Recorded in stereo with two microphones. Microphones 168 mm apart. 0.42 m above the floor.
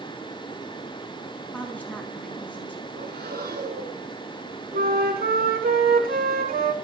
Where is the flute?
65° right (ahead or behind), 2 m.